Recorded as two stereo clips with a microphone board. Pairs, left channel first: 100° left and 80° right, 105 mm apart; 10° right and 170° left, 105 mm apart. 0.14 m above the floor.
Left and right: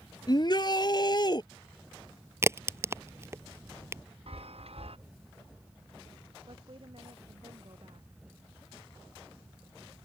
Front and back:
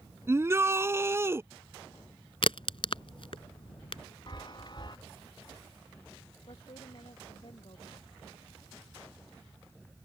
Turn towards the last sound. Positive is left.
turn(degrees=-45)